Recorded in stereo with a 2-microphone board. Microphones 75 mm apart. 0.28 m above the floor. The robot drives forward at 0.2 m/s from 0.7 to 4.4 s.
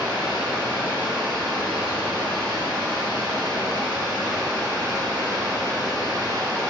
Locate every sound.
0.0 s running water: 75° right (ahead or behind), 1.0 m; by 6.7 s 65° right (ahead or behind), 1.0 m